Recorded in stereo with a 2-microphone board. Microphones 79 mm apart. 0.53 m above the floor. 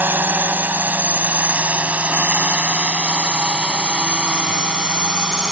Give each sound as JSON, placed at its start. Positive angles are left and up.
{"t": 0.0, "sound": "a drone", "side_deg": -25}